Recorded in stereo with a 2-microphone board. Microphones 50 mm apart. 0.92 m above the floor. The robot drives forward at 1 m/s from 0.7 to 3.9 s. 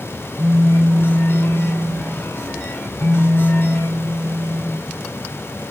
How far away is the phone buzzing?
About 4 m.